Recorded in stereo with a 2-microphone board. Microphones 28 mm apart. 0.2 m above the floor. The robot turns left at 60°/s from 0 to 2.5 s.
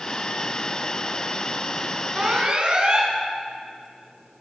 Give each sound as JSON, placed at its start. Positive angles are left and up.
{"t": 2.1, "sound": "an alarm", "side_deg": -30, "distance_m": 3.0}